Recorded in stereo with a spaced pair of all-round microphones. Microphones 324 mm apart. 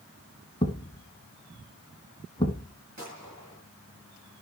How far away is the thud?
About 1.5 m.